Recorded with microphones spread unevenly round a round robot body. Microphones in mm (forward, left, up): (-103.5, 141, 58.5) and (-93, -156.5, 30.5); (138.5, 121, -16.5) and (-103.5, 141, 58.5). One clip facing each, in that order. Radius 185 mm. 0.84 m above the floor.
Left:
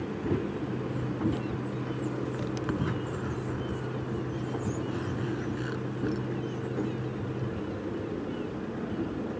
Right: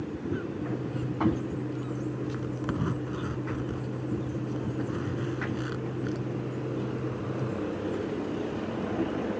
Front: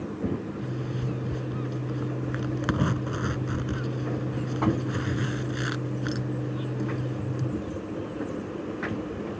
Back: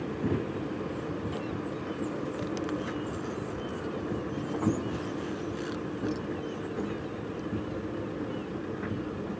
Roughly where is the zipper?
Ahead.